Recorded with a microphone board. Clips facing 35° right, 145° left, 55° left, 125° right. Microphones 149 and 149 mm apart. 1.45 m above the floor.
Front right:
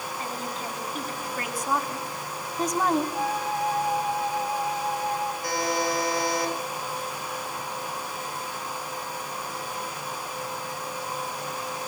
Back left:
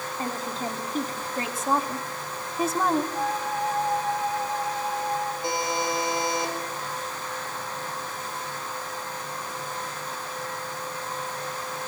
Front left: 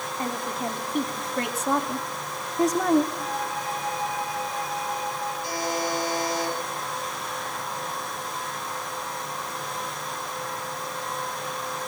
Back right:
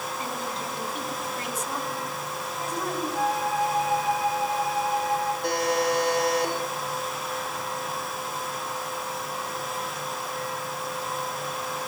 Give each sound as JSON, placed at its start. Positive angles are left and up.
{"t": 0.2, "sound": "a woman speaking", "azimuth_deg": 95, "distance_m": 3.5}
{"t": 3.1, "sound": "a flute", "azimuth_deg": -120, "distance_m": 8.0}
{"t": 5.4, "sound": "a buzzer", "azimuth_deg": -150, "distance_m": 5.5}